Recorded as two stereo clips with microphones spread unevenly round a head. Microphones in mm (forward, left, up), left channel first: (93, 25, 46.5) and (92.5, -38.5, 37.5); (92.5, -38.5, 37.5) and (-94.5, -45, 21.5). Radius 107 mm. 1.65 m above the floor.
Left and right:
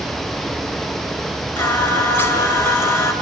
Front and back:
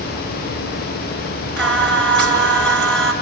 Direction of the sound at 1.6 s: 80° left.